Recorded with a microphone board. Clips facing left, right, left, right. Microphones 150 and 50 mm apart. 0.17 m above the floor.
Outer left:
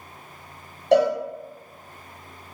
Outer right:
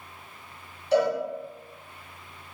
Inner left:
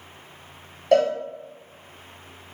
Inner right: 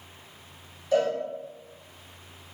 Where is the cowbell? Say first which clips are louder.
Outer left 5 dB, inner left 6 dB; 75° left (ahead or behind), 0.8 m.